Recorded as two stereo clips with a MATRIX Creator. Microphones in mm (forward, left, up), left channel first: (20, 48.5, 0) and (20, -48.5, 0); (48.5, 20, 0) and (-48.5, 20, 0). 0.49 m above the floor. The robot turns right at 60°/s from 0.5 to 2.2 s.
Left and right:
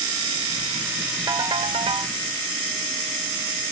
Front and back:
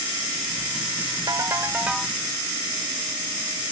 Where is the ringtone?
140° right, 0.7 m; by 2.1 s 85° right, 0.7 m.